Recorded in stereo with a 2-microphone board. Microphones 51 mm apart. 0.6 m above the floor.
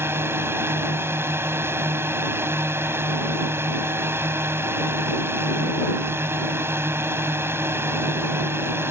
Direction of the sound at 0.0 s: 50° right (ahead or behind).